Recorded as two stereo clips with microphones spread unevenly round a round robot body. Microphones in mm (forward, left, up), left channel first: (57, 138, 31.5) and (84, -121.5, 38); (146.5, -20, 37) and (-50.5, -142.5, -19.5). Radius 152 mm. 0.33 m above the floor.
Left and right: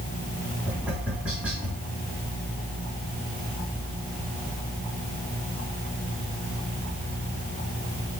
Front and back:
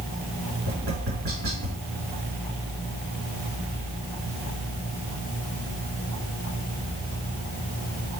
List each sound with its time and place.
0.7 s tapping: 170° right, 4 m